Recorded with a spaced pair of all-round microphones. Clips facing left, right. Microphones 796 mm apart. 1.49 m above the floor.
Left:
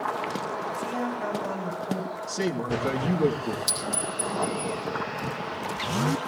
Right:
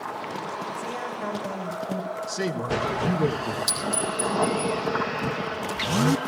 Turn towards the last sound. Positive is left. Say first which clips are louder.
# right 3 dB
turn(degrees=-20)  # may be behind; listen again after turning